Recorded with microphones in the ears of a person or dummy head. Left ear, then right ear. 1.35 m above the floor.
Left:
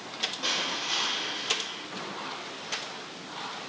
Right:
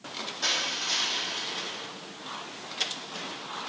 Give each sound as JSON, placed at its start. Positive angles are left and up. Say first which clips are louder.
{"t": 0.4, "sound": "crushing", "louder": "right 3 dB", "side_deg": -70, "distance_m": 1.6}